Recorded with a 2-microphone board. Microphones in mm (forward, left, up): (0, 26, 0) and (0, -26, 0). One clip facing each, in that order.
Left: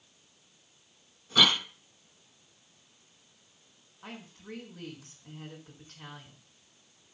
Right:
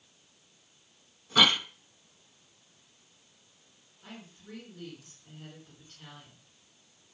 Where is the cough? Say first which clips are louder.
Right 1 dB; 10° right (ahead or behind), 1.3 m.